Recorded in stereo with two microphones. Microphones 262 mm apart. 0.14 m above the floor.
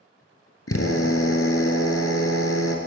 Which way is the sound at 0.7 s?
60° left (ahead or behind).